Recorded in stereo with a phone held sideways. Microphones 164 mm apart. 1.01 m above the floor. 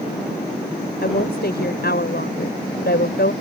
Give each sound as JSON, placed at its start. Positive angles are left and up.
{"t": 1.0, "sound": "a woman speaking", "side_deg": 80}